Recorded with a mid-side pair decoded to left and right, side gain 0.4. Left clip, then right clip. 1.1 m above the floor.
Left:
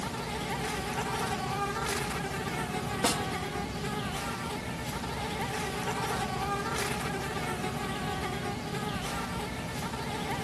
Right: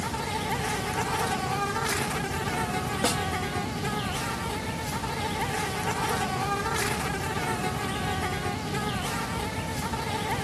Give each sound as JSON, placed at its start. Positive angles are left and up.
{"t": 0.0, "sound": "an insect", "azimuth_deg": -40, "distance_m": 0.7}
{"t": 3.0, "sound": "a snare drum", "azimuth_deg": -25, "distance_m": 3.0}